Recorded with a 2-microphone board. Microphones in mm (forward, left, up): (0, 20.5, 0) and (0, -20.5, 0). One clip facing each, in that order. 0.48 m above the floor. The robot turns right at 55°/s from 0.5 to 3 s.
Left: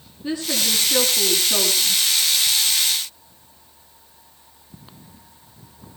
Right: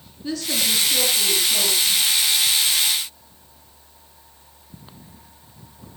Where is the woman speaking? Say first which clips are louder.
Left 1 dB; 20° left, 6.5 m; by 2.0 s 105° left, 6.5 m.